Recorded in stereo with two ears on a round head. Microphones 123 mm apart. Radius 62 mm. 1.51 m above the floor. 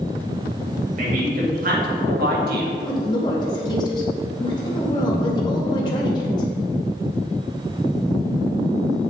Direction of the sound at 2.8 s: 35° left (ahead or behind).